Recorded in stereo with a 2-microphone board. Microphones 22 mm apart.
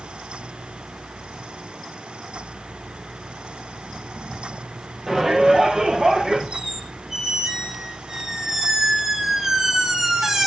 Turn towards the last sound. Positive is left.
turn(degrees=-20)  # may be behind; listen again after turning